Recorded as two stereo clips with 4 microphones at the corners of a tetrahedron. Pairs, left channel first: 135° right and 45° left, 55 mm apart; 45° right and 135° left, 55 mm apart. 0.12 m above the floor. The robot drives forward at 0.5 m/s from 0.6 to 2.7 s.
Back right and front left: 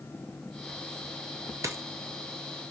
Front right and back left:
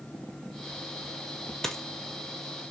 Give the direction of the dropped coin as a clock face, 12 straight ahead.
11 o'clock.